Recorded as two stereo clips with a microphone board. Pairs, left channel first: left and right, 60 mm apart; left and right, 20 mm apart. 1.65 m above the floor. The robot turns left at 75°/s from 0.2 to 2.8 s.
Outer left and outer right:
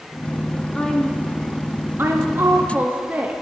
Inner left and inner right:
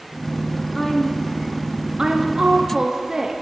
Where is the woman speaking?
15° left (ahead or behind), 0.5 m; by 3.4 s 30° right (ahead or behind), 0.5 m.